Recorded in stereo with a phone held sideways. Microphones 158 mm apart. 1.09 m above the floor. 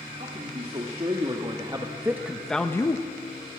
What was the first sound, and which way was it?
A man speaking, 45° right (ahead or behind).